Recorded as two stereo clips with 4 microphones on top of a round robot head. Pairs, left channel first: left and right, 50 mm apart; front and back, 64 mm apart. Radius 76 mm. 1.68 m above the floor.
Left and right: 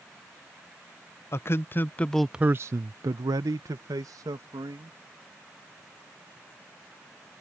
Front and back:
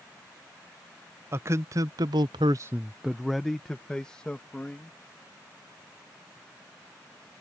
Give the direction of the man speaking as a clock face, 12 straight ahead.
8 o'clock.